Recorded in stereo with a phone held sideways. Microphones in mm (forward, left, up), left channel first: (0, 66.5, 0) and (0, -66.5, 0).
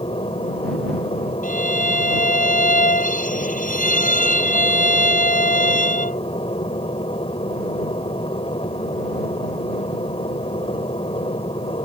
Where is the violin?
80° left.